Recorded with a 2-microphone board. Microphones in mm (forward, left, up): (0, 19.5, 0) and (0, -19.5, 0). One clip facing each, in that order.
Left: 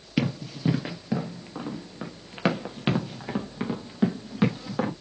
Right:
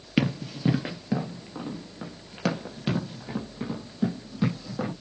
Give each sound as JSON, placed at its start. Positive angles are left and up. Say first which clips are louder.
{"t": 0.2, "sound": "running footsteps", "louder": "right 1 dB", "side_deg": -15, "distance_m": 1.7}